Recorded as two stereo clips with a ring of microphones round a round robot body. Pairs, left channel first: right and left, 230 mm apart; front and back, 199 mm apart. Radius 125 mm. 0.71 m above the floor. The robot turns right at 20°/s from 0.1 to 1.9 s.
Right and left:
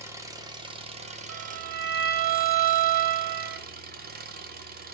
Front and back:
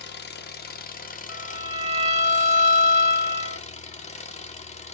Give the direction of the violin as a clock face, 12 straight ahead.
8 o'clock.